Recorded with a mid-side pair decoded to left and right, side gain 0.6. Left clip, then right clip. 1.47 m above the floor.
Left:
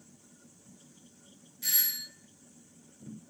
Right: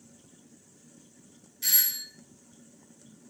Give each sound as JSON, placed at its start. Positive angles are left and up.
{"t": 1.6, "sound": "a doorbell", "azimuth_deg": -30, "distance_m": 1.0}